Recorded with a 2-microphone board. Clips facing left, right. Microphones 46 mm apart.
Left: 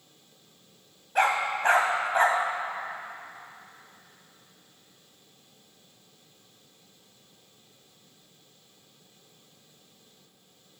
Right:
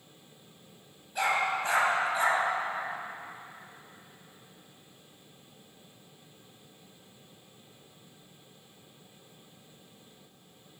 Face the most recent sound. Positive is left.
turn(degrees=55)  # may be behind; listen again after turning